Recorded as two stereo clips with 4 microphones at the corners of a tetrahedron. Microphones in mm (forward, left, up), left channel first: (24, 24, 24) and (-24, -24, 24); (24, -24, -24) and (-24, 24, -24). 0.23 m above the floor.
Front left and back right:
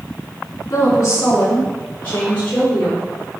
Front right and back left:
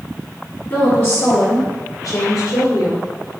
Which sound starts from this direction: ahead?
A woman speaking, at 0.7 s.